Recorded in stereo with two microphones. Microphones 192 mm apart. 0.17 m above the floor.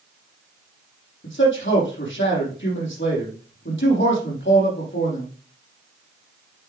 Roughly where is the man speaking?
Left.